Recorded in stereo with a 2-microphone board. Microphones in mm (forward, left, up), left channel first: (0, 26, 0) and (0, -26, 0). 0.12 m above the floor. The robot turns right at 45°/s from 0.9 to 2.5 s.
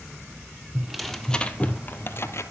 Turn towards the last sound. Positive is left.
turn(degrees=70)